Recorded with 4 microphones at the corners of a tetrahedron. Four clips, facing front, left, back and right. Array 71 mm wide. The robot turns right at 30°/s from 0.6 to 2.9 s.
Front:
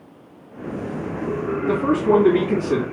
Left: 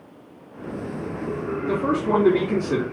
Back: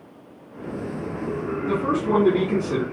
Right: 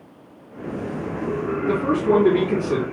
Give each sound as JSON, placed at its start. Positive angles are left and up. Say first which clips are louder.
{"t": 1.7, "sound": "a man speaking", "louder": "right 3 dB, front 5 dB", "azimuth_deg": -20, "distance_m": 1.7}